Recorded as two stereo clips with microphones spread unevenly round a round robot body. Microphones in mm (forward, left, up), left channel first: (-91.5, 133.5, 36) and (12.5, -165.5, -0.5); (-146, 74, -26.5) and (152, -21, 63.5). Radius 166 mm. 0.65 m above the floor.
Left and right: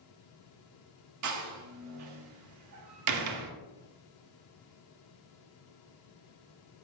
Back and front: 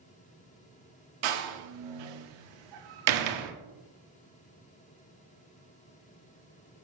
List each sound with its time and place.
1.2 s a door slam: 35° right, 0.9 m